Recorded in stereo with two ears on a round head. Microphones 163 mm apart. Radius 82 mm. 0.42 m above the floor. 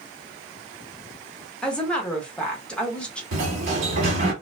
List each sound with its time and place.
1.6 s a woman speaking: 5° left (ahead or behind), 0.7 m
3.3 s a sliding door: 45° right (ahead or behind), 1.2 m